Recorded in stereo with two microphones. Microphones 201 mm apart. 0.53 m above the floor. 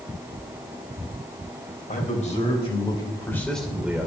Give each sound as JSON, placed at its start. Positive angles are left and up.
{"t": 1.9, "sound": "a man speaking", "side_deg": 40, "distance_m": 3.5}